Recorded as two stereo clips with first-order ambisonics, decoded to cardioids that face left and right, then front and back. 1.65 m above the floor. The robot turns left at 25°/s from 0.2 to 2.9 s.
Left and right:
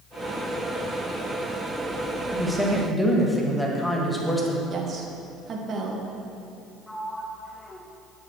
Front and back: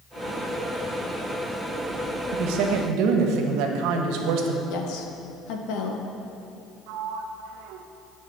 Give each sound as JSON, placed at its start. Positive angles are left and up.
{"t": 2.3, "sound": "a woman speaking", "azimuth_deg": -170, "distance_m": 1.5}
{"t": 4.7, "sound": "a woman speaking", "azimuth_deg": -30, "distance_m": 1.5}
{"t": 6.9, "sound": "a sliding door", "azimuth_deg": 170, "distance_m": 0.8}